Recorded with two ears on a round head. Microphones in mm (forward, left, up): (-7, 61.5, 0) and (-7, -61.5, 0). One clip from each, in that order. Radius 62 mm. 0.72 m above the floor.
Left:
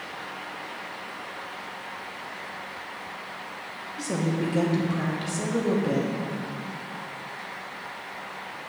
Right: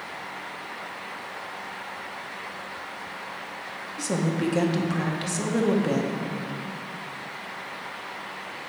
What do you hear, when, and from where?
4.0 s a woman speaking: 20° right (ahead or behind), 0.9 m